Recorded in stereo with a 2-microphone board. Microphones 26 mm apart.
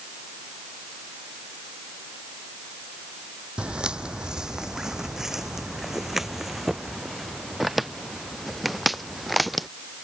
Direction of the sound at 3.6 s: 45° right (ahead or behind).